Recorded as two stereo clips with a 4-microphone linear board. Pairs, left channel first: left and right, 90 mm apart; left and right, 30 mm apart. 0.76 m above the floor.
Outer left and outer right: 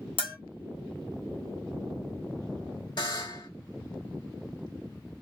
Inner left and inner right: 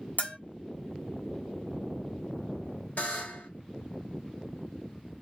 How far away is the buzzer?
About 1.7 m.